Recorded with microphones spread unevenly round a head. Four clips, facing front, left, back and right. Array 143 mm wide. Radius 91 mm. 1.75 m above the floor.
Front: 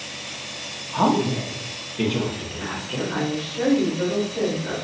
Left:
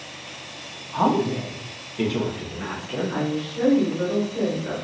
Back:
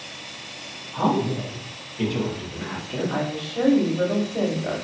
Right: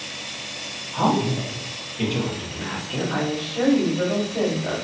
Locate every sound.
0.9 s a woman speaking: 10° left, 0.9 m; by 3.2 s 55° left, 1.6 m
3.1 s a woman speaking: 170° right, 1.1 m